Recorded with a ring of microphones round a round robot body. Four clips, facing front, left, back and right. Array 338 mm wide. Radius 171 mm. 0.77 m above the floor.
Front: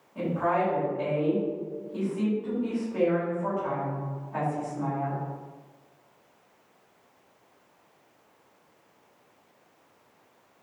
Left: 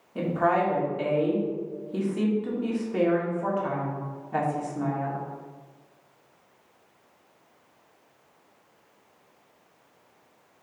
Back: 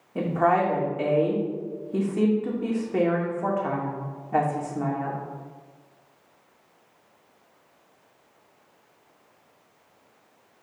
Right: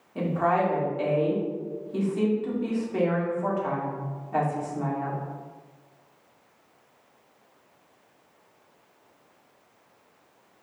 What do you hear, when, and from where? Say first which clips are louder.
0.1 s a woman speaking: even, back 4 dB; 170° left, 2 m